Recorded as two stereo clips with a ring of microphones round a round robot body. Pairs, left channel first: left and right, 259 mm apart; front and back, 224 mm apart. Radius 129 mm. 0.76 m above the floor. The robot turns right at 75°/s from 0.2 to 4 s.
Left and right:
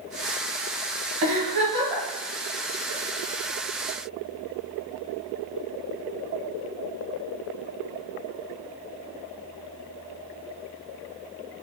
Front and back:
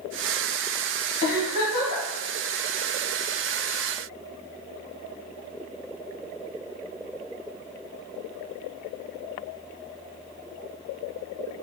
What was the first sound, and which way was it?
A giggle, 65° right.